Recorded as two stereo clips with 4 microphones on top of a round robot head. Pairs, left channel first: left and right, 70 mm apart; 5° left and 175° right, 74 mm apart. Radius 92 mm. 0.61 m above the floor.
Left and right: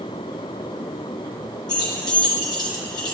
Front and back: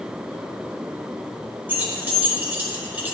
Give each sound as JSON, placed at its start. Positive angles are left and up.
{"t": 1.7, "sound": "keys jangling", "azimuth_deg": 120, "distance_m": 1.7}